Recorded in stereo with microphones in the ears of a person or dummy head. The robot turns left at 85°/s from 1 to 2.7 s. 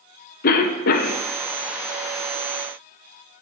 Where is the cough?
40° left (ahead or behind), 0.5 m; by 1.2 s 25° left (ahead or behind), 0.5 m.